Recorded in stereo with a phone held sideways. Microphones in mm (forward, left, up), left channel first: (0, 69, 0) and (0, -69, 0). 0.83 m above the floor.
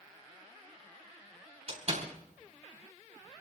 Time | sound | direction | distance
1.7 | a door slam | 50° right (ahead or behind) | 3.5 m